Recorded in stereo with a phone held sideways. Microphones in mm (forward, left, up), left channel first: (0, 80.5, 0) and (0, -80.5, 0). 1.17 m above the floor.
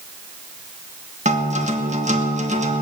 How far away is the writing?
No writing in this recording.